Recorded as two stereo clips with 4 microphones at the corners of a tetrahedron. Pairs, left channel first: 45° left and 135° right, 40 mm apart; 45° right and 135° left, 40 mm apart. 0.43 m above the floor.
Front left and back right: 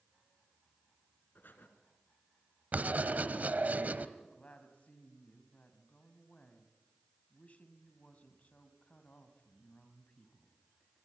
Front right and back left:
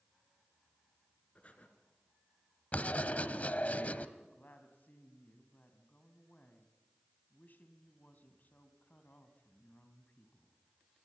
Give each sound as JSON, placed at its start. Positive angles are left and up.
{"t": 1.4, "sound": "breathing", "azimuth_deg": 10, "distance_m": 3.0}
{"t": 2.7, "sound": "writing", "azimuth_deg": -90, "distance_m": 1.2}
{"t": 4.2, "sound": "a woman speaking", "azimuth_deg": -5, "distance_m": 3.0}